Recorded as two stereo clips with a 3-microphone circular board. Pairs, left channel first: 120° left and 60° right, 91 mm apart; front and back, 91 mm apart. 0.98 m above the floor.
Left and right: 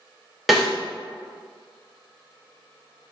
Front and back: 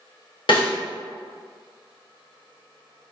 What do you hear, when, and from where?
0.5 s a snare drum: 30° left, 1.0 m